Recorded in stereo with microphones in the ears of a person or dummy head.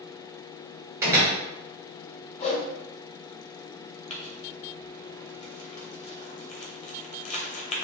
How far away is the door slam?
About 1.1 m.